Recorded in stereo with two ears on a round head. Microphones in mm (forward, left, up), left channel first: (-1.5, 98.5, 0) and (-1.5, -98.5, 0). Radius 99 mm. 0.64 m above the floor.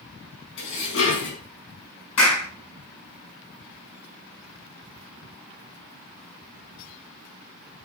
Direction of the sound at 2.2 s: 80° left.